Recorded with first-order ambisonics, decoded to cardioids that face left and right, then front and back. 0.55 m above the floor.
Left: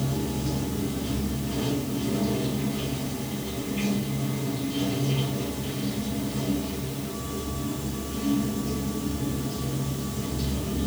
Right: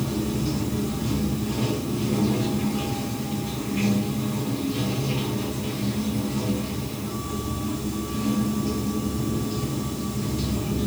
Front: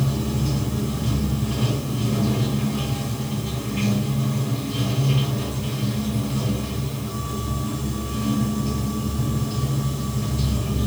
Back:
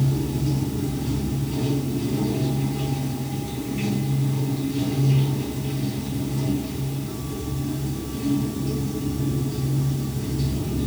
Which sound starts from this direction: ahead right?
Running water, at 0.0 s.